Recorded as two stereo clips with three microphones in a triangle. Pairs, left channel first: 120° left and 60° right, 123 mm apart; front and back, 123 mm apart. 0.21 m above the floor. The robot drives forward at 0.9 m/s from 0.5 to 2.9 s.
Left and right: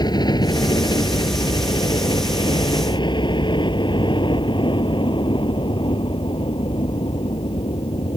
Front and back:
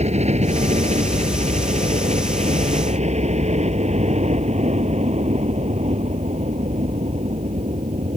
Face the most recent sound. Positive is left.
turn(degrees=160)